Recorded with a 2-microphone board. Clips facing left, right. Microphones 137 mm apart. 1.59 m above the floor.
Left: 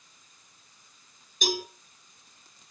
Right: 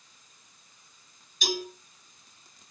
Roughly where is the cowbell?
Left.